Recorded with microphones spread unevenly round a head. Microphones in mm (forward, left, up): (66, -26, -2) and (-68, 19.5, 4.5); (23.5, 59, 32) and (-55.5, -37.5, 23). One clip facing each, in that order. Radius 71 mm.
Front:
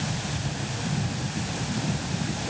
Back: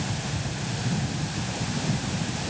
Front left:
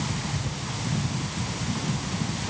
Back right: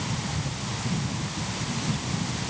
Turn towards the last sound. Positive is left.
No sound to turn to.